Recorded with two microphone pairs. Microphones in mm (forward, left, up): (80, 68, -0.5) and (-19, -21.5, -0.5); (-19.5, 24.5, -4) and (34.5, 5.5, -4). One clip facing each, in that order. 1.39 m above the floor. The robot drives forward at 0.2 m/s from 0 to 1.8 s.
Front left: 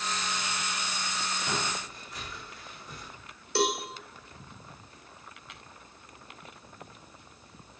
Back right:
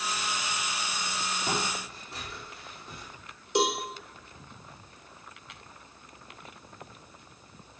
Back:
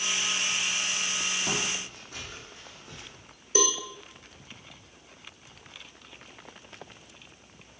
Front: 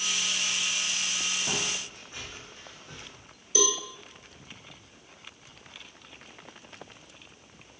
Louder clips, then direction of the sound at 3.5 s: Back right 1 dB, back 1 dB; 160° left.